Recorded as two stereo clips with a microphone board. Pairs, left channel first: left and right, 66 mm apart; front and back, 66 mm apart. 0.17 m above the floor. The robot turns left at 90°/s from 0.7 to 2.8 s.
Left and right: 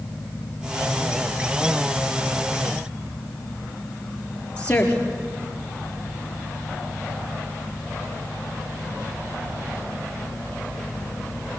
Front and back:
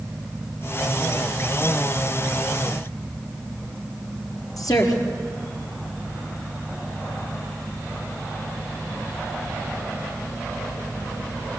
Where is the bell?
I don't hear a bell.